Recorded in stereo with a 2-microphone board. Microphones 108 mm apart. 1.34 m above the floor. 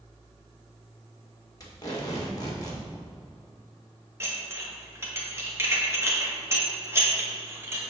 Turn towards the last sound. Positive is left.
turn(degrees=-25)  # may be behind; listen again after turning